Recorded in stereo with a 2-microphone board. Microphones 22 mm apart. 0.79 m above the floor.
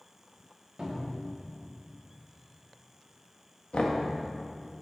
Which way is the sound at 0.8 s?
45° right (ahead or behind).